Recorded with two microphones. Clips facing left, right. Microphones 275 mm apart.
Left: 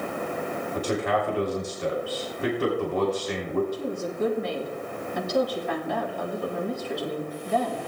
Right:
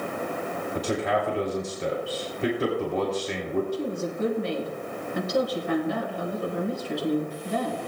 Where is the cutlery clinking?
I don't hear cutlery clinking.